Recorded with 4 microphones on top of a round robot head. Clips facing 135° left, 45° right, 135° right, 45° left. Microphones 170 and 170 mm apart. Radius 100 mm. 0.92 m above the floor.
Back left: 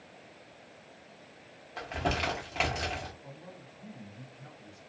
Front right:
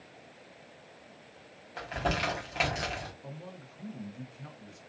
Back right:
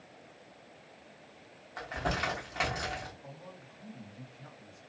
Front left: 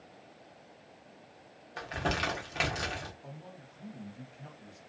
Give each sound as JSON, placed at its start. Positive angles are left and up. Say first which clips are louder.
{"t": 1.8, "sound": "crumpling", "louder": "even, front left 1 dB", "azimuth_deg": 45, "distance_m": 0.9}
{"t": 3.2, "sound": "a man speaking", "louder": "front right 3 dB, even", "azimuth_deg": -30, "distance_m": 0.8}